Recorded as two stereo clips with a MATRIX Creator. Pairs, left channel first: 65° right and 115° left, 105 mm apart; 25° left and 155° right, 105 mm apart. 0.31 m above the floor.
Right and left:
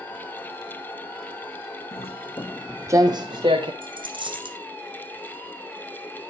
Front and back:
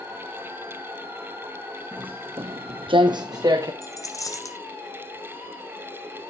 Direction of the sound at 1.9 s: 80° right.